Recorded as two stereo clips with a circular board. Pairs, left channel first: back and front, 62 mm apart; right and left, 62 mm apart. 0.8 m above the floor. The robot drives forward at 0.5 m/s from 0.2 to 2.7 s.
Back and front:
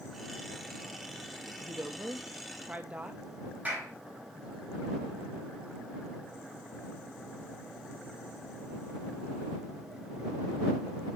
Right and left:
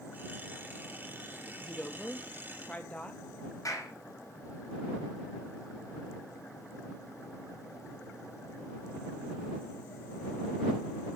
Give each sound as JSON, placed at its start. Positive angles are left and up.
{"t": 1.6, "sound": "a woman speaking", "azimuth_deg": -20, "distance_m": 1.1}
{"t": 3.6, "sound": "a clap", "azimuth_deg": -65, "distance_m": 5.0}